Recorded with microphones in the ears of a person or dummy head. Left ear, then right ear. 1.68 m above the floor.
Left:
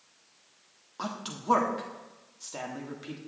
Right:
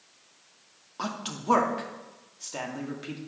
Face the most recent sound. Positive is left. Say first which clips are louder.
# right 3 dB
turn(degrees=0)  # may be behind; listen again after turning